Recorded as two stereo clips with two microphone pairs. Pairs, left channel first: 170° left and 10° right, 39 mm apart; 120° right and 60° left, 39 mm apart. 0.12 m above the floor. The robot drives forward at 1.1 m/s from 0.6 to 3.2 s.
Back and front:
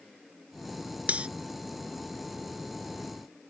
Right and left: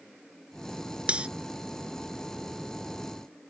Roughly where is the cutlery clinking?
Ahead.